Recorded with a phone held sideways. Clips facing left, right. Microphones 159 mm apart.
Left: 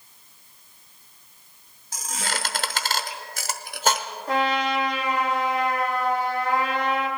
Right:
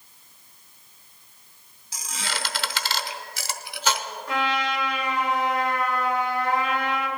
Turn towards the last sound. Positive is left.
turn(degrees=40)  # may be behind; listen again after turning